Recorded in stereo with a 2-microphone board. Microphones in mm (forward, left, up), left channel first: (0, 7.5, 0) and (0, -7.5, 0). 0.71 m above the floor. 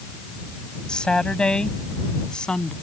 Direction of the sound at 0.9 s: 75° left (ahead or behind).